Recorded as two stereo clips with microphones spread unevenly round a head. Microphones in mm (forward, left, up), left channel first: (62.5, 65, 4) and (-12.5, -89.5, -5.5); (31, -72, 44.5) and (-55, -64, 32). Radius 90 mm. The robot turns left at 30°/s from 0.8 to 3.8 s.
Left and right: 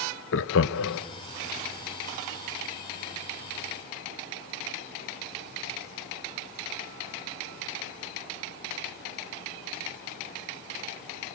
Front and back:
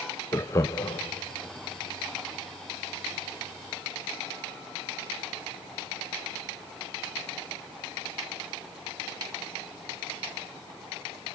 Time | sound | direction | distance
0.3 | laughter | 60° left | 0.6 m